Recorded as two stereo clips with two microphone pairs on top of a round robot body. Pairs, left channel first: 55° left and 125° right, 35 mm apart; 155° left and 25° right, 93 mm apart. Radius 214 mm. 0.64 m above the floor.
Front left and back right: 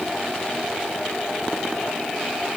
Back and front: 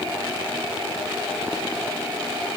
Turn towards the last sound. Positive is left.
No sound to turn to.